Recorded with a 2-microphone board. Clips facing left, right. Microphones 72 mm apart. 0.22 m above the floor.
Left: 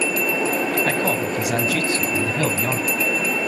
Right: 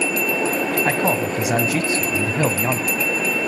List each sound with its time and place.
0.8 s a man speaking: 20° right (ahead or behind), 1.3 m